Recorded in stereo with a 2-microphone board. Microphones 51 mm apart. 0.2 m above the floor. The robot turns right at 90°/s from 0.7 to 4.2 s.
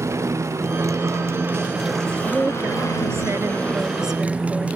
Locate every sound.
0.0 s a motorcycle: 110° right; by 4.8 s 155° right
2.2 s a woman speaking: 175° right; by 4.7 s straight ahead